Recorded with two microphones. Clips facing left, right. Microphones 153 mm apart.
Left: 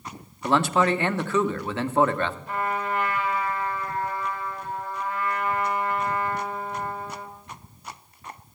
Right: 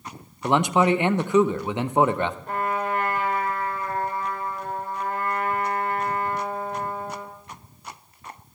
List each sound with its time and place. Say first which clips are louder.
0.4 s a man speaking: right 2 dB; 15° right (ahead or behind), 0.6 m
2.5 s a trumpet: right 2 dB; 55° right (ahead or behind), 2.5 m